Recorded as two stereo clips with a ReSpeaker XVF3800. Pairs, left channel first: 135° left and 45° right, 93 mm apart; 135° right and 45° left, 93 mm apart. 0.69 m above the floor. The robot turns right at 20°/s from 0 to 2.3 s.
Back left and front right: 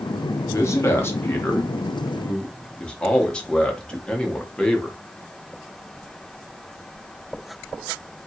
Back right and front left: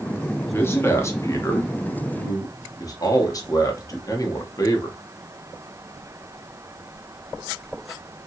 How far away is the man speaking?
About 0.8 m.